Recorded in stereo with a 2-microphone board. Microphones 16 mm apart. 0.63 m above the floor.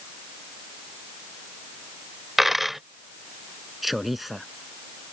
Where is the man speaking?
10° right (ahead or behind).